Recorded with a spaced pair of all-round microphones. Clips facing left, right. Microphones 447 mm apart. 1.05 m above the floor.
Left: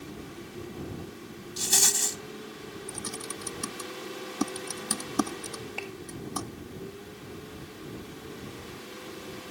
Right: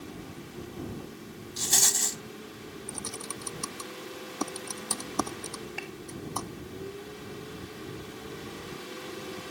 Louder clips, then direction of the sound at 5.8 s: Left 2 dB; 35° right (ahead or behind).